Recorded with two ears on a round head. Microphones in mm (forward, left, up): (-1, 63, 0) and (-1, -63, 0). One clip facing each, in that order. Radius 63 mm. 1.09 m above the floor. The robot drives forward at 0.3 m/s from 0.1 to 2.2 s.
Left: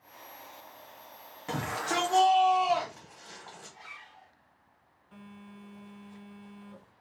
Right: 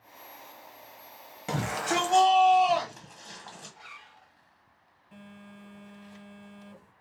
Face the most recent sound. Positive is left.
turn(degrees=-15)  # may be behind; listen again after turning